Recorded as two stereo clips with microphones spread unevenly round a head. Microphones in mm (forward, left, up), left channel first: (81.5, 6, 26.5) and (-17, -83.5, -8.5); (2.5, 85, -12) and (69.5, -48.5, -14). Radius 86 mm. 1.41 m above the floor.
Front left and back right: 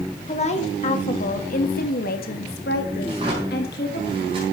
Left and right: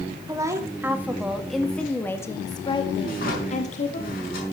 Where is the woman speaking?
5° left, 2.5 m; by 4.0 s 80° left, 2.5 m.